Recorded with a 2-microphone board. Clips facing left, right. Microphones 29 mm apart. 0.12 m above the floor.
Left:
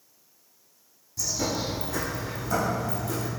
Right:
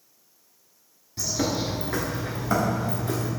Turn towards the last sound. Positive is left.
turn(degrees=-40)  # may be behind; listen again after turning